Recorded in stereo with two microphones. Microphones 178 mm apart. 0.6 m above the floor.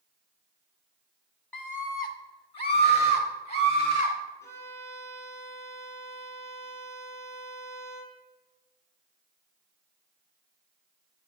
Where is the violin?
20° left (ahead or behind), 2 m.